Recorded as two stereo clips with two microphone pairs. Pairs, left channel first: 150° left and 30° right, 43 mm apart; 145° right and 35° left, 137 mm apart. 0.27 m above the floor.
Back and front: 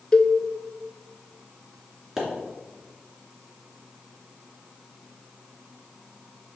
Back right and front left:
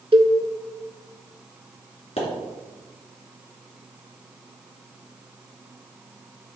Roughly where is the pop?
Right.